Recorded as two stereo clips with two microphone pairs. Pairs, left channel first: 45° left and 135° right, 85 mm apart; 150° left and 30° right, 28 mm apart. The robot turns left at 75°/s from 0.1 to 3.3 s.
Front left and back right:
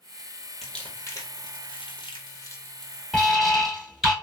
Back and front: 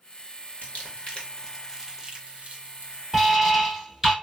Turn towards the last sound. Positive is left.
turn(degrees=-45)